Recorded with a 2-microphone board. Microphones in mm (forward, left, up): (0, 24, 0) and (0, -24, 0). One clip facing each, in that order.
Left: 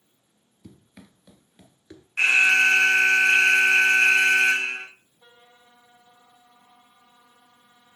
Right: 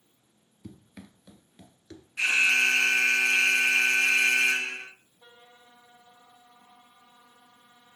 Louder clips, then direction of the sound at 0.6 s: Right 2 dB; 10° right (ahead or behind).